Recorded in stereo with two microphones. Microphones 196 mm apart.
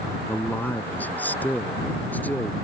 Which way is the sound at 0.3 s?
10° left (ahead or behind).